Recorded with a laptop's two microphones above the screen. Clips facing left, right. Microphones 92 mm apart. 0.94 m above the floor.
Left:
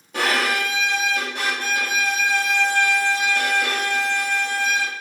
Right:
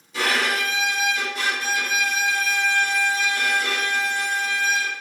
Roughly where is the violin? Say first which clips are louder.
Left 2 dB; left.